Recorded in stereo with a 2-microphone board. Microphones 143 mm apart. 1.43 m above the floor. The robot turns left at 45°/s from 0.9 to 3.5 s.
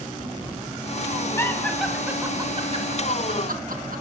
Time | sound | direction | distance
1.4 | laughter | 20° left (ahead or behind) | 2.5 m